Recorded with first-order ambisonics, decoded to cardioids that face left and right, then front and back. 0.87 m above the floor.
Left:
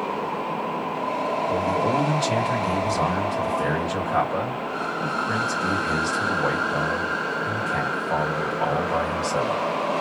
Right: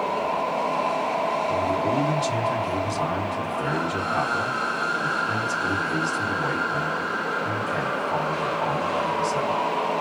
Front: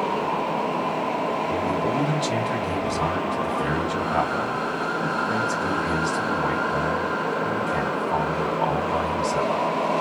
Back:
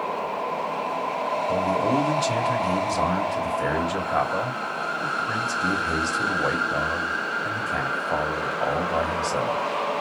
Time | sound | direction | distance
1.5 | a man speaking | 140° left | 3.5 m